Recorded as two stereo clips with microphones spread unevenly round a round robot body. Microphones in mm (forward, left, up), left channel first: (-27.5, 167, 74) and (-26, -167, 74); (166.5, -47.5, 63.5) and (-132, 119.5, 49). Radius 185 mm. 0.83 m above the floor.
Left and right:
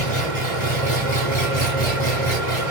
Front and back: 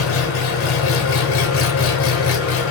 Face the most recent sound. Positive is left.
turn(degrees=20)